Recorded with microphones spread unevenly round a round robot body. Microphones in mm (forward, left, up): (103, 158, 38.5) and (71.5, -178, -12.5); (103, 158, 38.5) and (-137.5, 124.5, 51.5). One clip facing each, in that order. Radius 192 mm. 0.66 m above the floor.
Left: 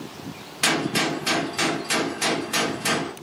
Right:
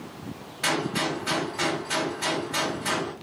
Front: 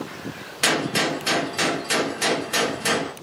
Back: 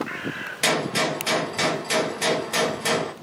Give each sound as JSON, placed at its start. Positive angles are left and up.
{"t": 0.6, "sound": "a gunshot", "azimuth_deg": 85, "distance_m": 1.0}